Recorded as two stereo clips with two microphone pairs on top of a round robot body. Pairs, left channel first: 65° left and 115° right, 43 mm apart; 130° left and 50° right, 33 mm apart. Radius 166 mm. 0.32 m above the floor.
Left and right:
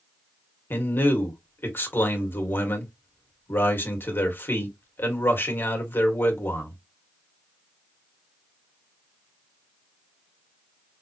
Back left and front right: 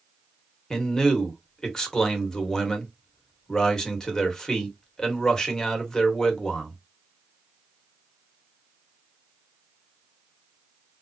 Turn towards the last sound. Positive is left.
turn(degrees=65)